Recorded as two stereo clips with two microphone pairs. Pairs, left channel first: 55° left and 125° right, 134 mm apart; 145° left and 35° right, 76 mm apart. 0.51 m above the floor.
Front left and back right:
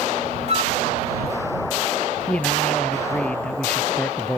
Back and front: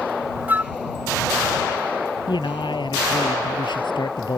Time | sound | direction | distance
0.5 | a flute | 95° right | ?
2.3 | a man speaking | 135° left | ?